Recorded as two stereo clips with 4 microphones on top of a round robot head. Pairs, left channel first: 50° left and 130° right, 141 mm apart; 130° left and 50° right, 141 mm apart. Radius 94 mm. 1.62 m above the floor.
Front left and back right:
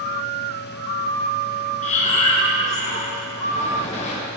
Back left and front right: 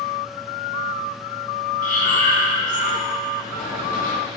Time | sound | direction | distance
1.8 | breathing | 95° left | 1.2 m